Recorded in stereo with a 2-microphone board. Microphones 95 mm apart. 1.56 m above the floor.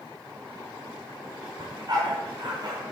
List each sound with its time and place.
1.6 s a dog barking: 45° right (ahead or behind), 2.5 m